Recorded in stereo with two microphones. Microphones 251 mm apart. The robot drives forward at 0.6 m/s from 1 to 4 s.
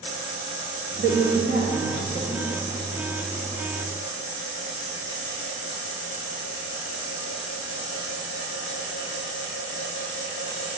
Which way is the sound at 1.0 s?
45° right (ahead or behind).